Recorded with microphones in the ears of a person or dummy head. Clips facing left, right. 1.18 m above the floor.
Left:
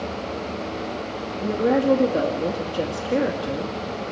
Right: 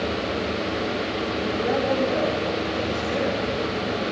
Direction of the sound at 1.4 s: 40° left (ahead or behind).